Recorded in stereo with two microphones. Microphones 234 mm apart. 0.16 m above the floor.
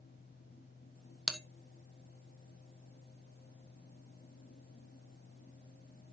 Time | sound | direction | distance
1.3 | a bell | centre (ahead or behind) | 1.2 m